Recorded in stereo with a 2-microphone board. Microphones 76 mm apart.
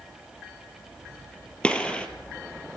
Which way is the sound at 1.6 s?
15° left (ahead or behind).